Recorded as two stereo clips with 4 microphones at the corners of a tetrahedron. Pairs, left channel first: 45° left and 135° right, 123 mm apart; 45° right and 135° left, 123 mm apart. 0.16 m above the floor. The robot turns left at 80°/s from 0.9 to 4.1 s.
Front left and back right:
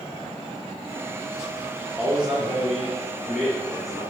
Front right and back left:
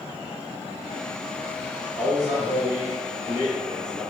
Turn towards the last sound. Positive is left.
turn(degrees=95)